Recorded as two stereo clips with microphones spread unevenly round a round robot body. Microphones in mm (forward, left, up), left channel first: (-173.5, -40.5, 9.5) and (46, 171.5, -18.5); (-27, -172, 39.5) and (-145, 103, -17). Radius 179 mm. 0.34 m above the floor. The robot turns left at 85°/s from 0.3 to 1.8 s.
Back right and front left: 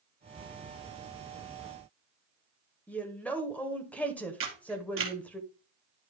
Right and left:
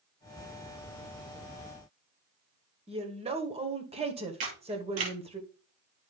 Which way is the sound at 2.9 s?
135° left.